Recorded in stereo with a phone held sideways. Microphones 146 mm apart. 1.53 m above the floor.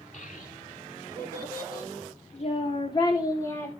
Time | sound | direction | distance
0.1 | a child speaking | 65° left (ahead or behind) | 3 m